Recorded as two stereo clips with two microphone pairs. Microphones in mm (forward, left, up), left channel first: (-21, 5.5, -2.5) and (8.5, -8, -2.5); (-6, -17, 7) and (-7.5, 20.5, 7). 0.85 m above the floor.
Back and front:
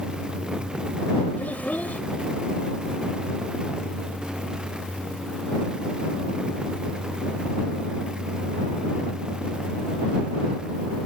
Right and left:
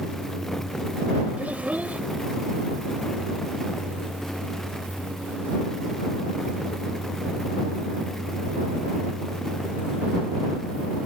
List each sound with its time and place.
1.4 s a child speaking: 135° left